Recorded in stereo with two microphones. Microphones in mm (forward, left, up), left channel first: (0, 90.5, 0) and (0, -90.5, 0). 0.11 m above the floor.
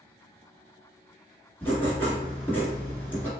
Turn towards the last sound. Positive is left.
turn(degrees=10)  # may be behind; listen again after turning